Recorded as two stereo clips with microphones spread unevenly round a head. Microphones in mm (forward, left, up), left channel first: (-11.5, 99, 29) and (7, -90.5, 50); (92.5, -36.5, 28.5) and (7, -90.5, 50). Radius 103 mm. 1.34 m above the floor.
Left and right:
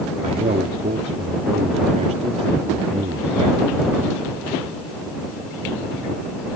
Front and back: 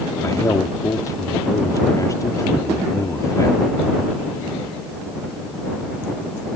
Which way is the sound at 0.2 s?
25° right.